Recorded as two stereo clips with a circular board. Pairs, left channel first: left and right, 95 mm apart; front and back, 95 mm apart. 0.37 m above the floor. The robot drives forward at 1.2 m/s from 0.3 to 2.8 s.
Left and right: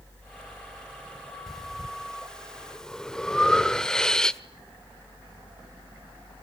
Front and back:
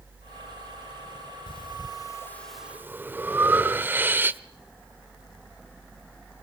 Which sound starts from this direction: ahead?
Breathing, at 1.5 s.